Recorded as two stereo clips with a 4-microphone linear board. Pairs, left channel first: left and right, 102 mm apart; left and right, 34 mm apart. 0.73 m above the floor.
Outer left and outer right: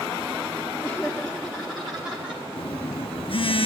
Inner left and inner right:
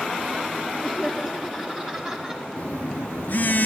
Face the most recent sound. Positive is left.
turn(degrees=60)  # may be behind; listen again after turning